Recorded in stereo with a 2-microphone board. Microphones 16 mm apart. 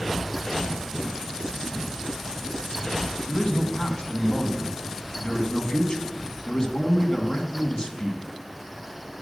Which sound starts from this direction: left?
A man speaking, at 3.3 s.